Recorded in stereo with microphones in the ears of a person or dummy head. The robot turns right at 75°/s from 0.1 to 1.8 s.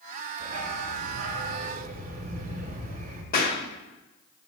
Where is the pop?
50° left (ahead or behind), 1.4 m.